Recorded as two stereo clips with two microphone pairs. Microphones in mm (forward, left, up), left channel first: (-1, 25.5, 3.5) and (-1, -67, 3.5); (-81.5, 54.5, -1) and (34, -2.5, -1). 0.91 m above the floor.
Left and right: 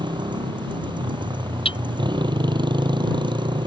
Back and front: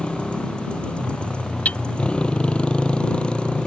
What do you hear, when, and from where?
0.0 s a motorcycle: 125° right
1.6 s hammering: 75° left